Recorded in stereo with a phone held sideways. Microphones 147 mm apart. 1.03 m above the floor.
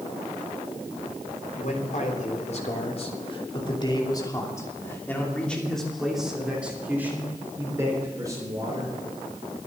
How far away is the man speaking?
About 3.5 m.